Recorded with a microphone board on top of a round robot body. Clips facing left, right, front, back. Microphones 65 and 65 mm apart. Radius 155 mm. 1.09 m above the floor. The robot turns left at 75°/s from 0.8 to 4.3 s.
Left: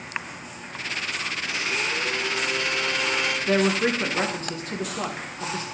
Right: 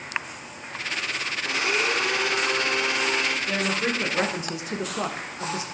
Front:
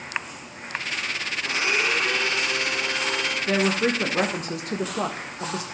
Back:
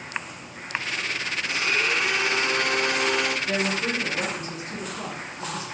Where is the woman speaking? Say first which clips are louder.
Left 4 dB, front 4 dB; 55° left, 1.4 m; by 5.6 s 10° right, 1.4 m.